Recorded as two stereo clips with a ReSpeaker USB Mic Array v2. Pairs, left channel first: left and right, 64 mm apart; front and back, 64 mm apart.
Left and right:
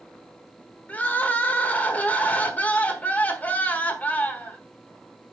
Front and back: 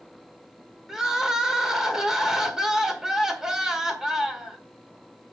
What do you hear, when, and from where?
0.9 s crying: 110° left, 1.3 m